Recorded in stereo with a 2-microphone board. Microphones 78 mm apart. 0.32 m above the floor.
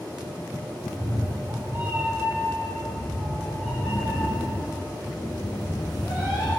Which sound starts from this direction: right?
A cat meowing, at 0.8 s.